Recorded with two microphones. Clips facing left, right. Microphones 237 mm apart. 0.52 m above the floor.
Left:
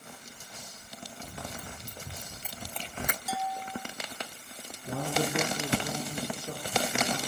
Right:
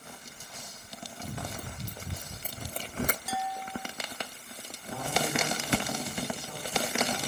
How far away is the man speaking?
About 10 m.